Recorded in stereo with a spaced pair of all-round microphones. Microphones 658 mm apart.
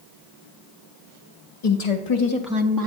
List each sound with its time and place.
1.6 s a woman speaking: 70° left (ahead or behind), 0.8 m; by 2.9 s 35° right (ahead or behind), 0.7 m